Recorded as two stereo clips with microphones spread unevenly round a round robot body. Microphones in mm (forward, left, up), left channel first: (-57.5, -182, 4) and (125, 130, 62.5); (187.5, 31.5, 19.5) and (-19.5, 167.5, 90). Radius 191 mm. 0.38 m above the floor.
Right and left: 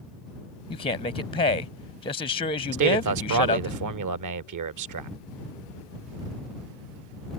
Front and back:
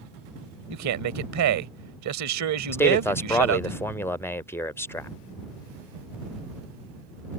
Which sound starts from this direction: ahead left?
A man speaking, at 2.7 s.